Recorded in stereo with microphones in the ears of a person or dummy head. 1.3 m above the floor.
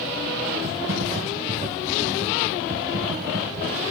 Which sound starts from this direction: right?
Typing on a keyboard, at 0.6 s.